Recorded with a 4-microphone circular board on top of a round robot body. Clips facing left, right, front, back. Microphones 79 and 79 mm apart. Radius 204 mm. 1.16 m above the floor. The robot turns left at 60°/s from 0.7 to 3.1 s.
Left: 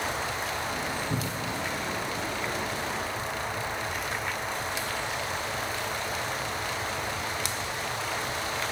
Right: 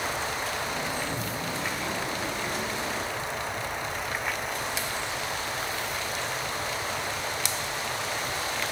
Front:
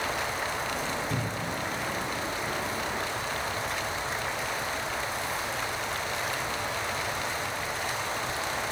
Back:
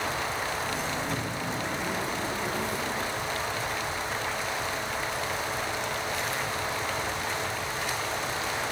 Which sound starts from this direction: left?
A cupboard door, at 1.1 s.